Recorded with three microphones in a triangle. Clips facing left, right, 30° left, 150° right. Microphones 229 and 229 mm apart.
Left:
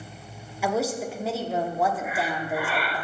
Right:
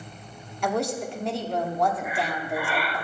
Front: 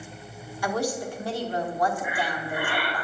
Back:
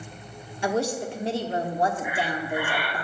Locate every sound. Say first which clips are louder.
0.6 s a woman speaking: left 1 dB, back 2 dB; 170° left, 0.9 m
2.0 s breathing: left 1 dB, back 2 dB; straight ahead, 0.9 m